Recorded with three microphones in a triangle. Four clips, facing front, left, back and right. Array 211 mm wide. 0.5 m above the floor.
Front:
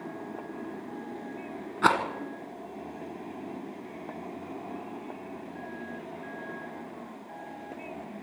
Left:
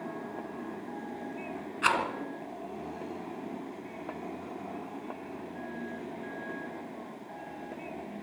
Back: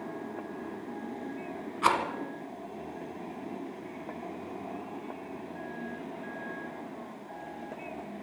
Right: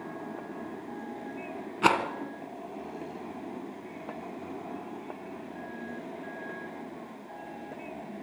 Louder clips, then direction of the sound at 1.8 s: Right 4 dB, front 2 dB; 50° right.